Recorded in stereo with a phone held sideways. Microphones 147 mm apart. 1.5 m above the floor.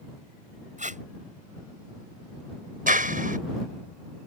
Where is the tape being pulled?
55° right (ahead or behind).